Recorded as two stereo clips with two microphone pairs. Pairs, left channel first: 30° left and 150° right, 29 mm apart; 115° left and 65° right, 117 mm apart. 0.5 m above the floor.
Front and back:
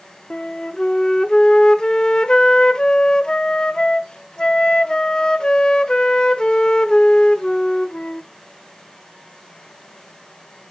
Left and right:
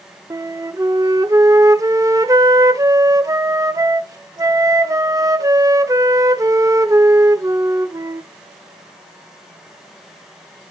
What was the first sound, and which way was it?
A flute, 20° right.